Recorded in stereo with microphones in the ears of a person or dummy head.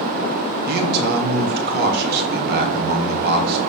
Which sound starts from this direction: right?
A man speaking, at 0.7 s.